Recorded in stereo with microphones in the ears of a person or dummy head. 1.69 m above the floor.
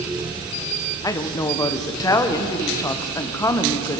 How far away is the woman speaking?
About 0.8 m.